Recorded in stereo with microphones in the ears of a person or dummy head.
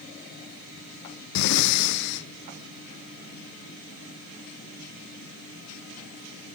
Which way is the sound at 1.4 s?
60° left (ahead or behind).